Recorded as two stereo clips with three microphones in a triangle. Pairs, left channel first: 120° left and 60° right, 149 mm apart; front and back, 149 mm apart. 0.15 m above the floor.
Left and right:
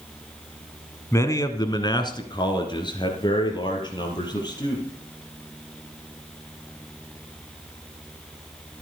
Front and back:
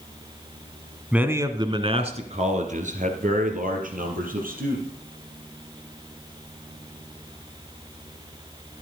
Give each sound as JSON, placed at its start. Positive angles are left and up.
{"t": 1.1, "sound": "a man speaking", "azimuth_deg": 110, "distance_m": 1.1}